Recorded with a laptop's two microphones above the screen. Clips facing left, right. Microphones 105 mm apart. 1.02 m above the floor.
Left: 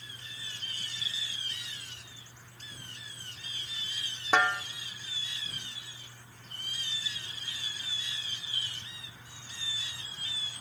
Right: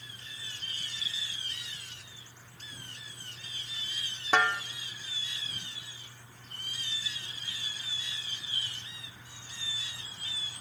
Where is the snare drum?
10° left (ahead or behind), 0.8 m.